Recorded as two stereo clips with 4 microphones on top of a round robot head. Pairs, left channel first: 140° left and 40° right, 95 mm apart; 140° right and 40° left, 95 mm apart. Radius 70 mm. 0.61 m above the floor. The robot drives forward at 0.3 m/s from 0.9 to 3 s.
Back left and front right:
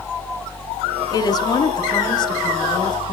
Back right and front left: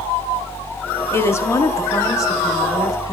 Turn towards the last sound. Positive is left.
turn(degrees=175)